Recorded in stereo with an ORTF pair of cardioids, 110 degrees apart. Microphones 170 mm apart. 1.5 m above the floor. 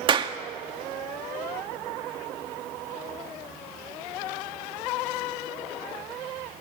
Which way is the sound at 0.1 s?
30° right.